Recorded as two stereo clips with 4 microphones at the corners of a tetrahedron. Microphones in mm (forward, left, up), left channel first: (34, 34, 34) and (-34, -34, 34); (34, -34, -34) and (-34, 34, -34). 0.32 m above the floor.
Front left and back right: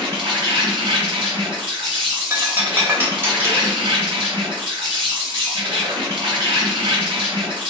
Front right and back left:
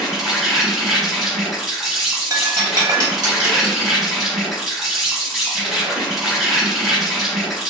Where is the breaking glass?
165° left, 0.7 m.